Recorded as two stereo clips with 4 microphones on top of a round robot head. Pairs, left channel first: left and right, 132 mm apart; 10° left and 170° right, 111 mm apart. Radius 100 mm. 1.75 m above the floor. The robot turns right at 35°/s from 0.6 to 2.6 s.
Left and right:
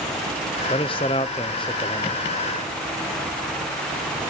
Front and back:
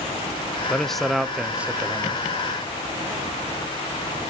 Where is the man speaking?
90° left, 0.5 m; by 2.2 s 145° left, 0.5 m.